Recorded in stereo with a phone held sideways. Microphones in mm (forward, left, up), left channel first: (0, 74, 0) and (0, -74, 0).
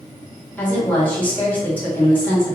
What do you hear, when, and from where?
0.6 s a woman speaking: 10° left (ahead or behind), 1.3 m